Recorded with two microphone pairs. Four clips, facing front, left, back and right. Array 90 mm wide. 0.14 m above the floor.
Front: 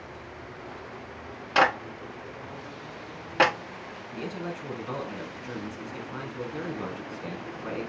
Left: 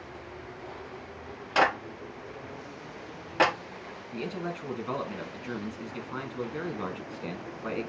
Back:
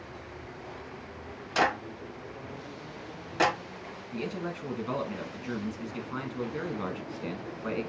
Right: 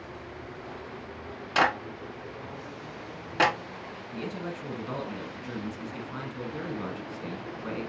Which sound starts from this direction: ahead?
A clap, at 1.6 s.